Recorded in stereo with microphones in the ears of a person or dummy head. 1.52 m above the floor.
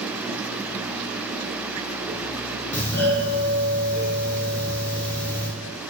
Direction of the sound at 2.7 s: 10° left (ahead or behind).